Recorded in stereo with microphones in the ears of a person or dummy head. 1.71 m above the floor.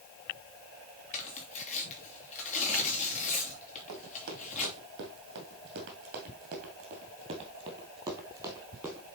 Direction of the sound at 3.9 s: 45° right (ahead or behind).